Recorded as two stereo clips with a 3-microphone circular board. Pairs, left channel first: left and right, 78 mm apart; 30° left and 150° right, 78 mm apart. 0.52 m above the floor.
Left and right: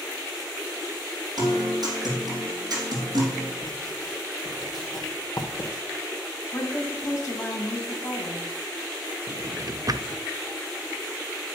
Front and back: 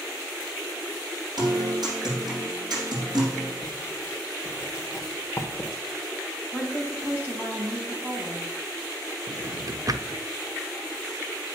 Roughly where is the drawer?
Behind right.